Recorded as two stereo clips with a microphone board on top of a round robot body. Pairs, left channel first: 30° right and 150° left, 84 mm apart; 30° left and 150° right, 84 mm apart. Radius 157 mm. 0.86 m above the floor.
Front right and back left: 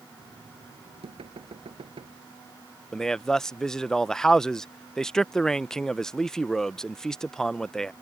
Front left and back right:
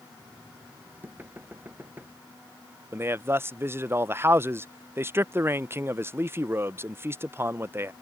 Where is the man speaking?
110° right.